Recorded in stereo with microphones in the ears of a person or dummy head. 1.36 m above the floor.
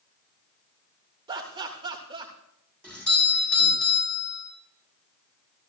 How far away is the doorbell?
About 7 m.